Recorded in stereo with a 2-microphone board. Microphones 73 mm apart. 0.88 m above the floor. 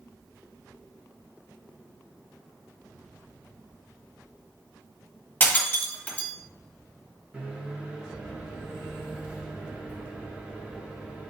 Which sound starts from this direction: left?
Breaking glass, at 5.4 s.